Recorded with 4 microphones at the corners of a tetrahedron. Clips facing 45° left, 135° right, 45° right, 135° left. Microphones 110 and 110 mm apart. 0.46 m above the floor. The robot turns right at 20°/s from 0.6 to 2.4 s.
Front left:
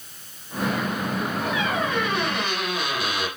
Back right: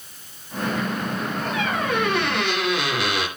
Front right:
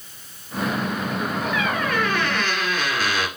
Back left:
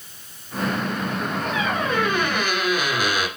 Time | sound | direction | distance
1.5 | a squeak | 165° right | 2.5 m